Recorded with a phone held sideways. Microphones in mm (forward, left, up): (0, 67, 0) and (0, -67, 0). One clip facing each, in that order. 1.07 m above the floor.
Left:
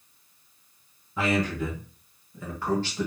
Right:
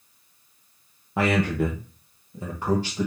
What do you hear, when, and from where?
1.2 s a man speaking: 70° right (ahead or behind), 0.7 m; by 3.1 s 10° right (ahead or behind), 1.0 m